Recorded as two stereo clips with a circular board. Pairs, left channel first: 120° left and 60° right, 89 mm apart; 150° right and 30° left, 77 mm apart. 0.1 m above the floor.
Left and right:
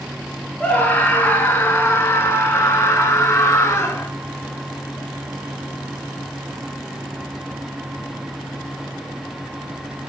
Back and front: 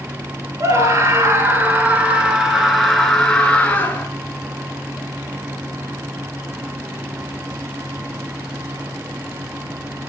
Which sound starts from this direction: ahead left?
A scream, at 0.6 s.